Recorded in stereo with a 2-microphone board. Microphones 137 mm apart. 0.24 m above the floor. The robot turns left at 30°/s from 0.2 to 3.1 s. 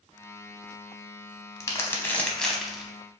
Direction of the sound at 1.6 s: 25° left (ahead or behind).